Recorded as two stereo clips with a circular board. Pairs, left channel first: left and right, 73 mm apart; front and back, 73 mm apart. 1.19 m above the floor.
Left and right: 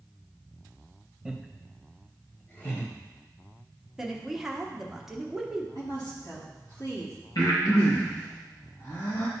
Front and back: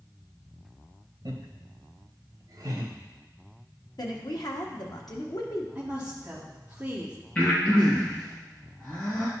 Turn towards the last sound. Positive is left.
turn(degrees=70)